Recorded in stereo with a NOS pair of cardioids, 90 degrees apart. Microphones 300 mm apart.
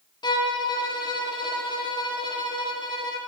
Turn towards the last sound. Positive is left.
turn(degrees=15)